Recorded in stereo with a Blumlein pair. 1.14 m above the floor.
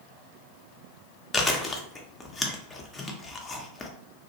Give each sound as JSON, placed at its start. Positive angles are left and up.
{"t": 1.3, "sound": "chewing", "azimuth_deg": 15, "distance_m": 0.5}